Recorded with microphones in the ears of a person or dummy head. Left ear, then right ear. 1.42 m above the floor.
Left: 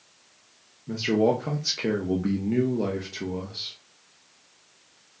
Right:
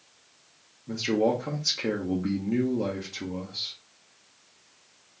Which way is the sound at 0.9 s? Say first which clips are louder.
Left 2 dB; 10° left (ahead or behind).